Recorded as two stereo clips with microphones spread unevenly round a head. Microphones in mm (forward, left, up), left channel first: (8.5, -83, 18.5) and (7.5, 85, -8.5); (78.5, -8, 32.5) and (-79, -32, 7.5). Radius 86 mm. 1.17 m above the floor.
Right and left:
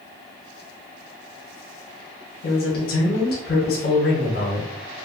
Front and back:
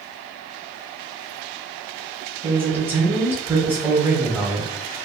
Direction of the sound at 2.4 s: 105° right.